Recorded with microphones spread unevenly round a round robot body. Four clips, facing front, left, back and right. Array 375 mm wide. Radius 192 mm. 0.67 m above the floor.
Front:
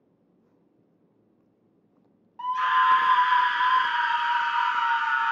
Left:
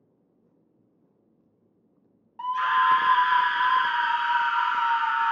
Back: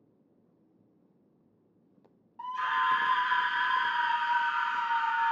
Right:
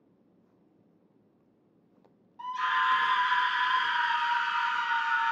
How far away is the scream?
About 0.5 m.